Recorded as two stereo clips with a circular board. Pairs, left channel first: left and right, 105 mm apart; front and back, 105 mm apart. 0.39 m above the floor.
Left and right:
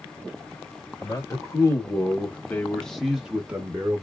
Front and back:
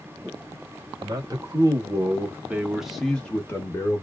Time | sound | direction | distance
1.0 | a man speaking | 140° left | 1.2 m